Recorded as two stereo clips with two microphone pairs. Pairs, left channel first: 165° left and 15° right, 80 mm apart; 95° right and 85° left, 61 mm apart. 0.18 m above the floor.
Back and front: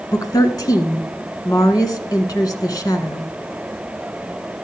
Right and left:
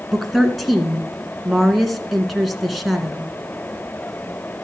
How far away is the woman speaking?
About 1.8 m.